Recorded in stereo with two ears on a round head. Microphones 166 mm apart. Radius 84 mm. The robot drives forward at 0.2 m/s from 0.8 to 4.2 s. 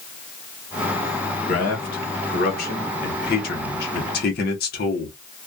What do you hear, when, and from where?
1.5 s a man speaking: 50° left (ahead or behind), 1.3 m; by 5.1 s 60° left (ahead or behind), 1.1 m